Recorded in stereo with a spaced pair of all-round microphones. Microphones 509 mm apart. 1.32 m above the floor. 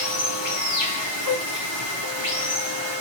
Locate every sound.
0.0 s running water: 55° left (ahead or behind), 1.6 m
1.2 s a gasp: 50° right (ahead or behind), 2.5 m